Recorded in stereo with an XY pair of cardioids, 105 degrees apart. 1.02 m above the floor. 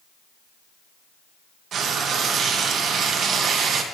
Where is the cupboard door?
No cupboard door in this recording.